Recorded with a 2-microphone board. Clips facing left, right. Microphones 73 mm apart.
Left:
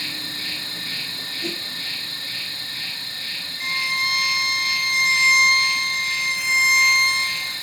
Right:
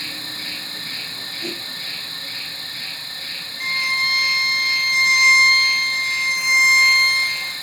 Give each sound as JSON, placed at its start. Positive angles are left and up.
{"t": 0.0, "sound": "an insect", "side_deg": -35, "distance_m": 2.0}
{"t": 1.4, "sound": "a whoosh", "side_deg": -10, "distance_m": 1.2}
{"t": 3.6, "sound": "a violin", "side_deg": -40, "distance_m": 0.7}